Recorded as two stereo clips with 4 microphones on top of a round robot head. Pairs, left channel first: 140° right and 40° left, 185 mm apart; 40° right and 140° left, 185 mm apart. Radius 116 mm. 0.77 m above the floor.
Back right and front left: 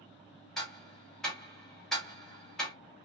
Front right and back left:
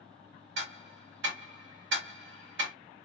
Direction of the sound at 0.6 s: 135° left.